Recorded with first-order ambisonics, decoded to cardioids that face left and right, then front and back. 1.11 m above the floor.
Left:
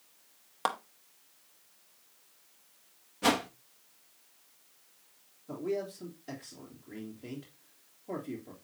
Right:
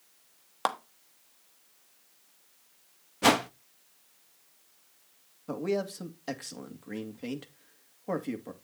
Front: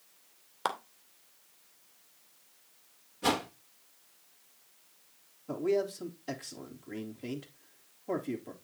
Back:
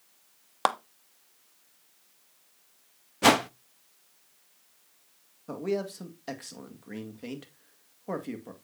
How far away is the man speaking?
About 1.9 m.